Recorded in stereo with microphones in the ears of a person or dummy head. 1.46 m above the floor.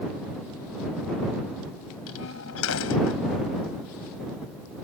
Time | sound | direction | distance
2.1 | a door slam | 85° left | ?